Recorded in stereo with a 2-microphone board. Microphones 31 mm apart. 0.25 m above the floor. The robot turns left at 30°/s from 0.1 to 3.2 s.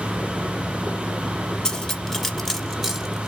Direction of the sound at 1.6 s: 20° left (ahead or behind).